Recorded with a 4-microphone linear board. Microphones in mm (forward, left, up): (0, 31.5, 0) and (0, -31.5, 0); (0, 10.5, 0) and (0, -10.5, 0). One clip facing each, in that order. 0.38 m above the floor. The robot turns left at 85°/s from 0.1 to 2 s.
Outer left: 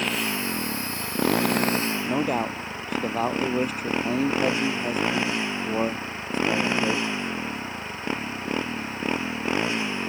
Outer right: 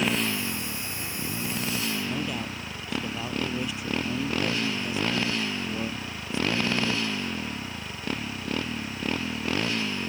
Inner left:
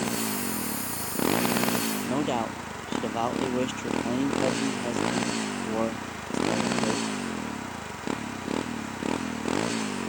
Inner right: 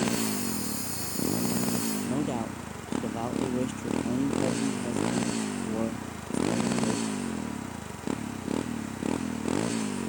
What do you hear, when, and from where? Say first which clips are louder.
0.0 s a motorcycle: even, inner right 1 dB; straight behind; by 10.1 s 20° left
2.0 s a man speaking: outer left 7 dB, inner left 3 dB; 50° left (ahead or behind)